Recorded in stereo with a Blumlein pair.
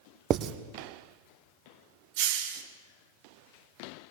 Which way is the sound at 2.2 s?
50° right.